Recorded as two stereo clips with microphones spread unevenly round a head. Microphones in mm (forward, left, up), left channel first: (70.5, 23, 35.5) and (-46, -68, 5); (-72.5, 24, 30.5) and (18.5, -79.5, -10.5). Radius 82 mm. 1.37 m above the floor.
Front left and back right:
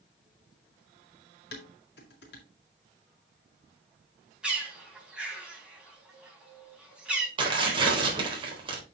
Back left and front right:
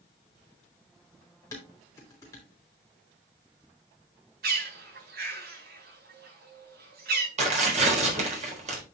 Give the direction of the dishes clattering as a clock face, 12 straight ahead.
10 o'clock.